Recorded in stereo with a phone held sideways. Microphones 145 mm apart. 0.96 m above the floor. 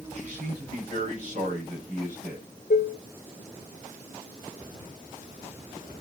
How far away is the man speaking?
About 6.5 m.